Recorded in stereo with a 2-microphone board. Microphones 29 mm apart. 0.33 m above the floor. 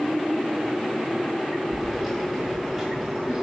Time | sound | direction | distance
1.7 | keys jangling | 10° right (ahead or behind) | 3.5 m